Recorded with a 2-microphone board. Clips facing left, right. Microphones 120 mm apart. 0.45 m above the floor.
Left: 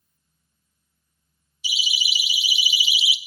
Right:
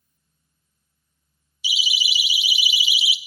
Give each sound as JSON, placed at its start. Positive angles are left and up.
{"t": 1.6, "sound": "a siren", "side_deg": 55, "distance_m": 3.0}